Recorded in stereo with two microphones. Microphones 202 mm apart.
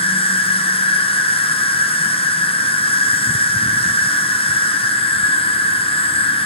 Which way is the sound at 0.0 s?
25° left (ahead or behind).